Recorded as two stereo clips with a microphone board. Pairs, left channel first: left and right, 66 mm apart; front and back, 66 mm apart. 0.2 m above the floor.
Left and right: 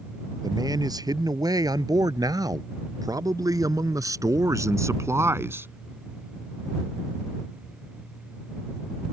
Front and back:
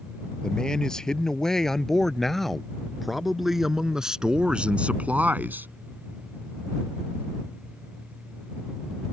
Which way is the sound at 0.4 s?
80° right.